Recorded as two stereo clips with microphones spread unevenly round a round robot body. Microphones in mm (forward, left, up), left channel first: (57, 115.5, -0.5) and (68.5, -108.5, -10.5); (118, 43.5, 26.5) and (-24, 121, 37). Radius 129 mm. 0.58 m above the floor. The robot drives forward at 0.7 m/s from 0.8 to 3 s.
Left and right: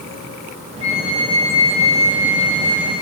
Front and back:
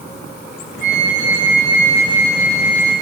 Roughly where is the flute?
Behind.